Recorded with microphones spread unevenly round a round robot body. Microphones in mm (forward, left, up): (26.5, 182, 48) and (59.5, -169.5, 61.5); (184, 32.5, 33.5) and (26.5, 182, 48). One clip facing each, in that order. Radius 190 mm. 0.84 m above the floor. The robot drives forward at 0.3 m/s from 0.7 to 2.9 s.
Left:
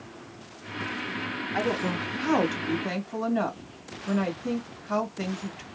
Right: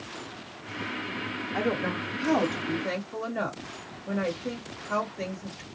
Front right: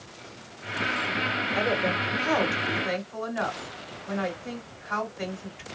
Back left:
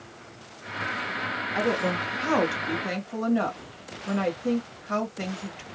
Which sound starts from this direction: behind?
A woman speaking, at 1.5 s.